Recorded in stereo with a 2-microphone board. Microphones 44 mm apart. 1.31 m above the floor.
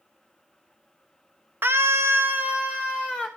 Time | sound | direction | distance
1.6 | a scream | 55° right (ahead or behind) | 0.8 m